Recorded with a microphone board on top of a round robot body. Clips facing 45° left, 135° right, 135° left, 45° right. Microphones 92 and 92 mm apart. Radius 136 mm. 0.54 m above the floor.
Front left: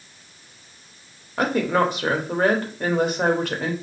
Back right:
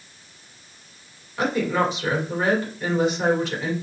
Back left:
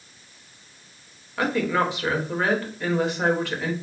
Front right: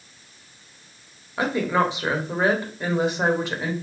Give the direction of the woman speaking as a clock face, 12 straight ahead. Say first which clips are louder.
Front left 2 dB, front right 1 dB; 11 o'clock.